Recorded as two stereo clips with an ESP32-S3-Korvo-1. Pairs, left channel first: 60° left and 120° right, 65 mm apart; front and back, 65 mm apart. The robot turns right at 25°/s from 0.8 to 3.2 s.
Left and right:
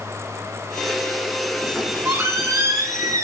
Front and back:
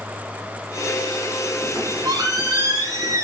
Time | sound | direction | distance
1.6 | a squeak | 175° left | 4 m